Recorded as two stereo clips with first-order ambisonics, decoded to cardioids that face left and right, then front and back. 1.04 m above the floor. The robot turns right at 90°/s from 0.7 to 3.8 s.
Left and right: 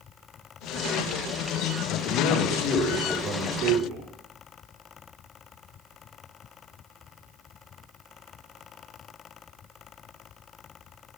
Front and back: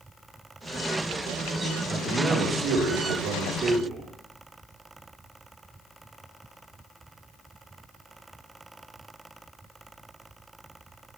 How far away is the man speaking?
About 1.2 m.